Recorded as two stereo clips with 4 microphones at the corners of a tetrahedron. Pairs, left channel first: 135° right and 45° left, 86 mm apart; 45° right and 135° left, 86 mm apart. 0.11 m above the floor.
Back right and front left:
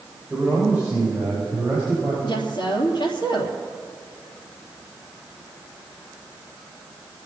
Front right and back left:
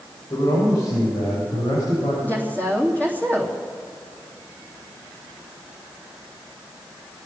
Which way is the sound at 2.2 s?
115° right.